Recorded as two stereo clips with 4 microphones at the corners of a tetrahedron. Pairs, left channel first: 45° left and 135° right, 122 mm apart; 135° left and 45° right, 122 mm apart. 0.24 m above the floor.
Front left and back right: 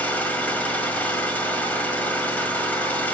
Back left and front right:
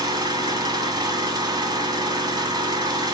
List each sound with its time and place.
0.0 s an engine running: 25° right, 1.4 m